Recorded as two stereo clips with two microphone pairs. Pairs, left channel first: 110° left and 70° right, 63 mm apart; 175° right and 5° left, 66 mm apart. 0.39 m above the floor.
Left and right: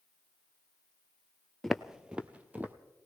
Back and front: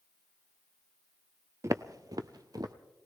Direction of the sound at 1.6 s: 30° left.